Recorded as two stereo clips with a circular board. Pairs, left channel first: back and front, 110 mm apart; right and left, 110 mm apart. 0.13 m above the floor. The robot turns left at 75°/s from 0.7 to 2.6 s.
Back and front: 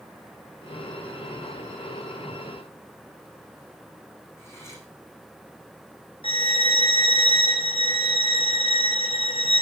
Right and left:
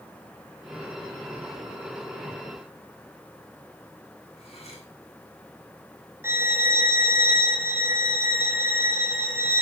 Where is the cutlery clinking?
115° right, 6.5 m.